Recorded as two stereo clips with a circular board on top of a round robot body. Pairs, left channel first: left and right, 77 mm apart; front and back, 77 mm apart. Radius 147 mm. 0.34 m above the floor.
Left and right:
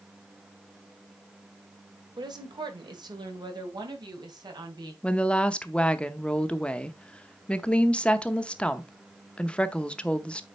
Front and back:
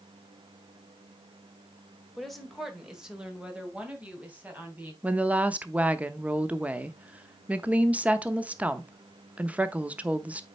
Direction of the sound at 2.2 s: 90° right.